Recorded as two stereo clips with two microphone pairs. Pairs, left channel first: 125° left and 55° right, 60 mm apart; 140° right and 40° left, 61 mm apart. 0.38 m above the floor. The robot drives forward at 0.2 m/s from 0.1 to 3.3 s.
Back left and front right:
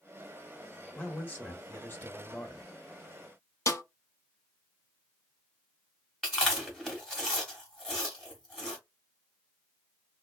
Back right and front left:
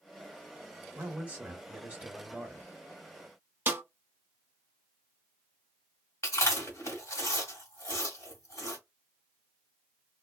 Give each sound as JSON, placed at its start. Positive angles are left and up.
{"t": 0.9, "sound": "a man speaking", "azimuth_deg": 80, "distance_m": 1.2}
{"t": 3.7, "sound": "a snare drum", "azimuth_deg": 95, "distance_m": 0.7}
{"t": 6.2, "sound": "chewing", "azimuth_deg": -155, "distance_m": 1.3}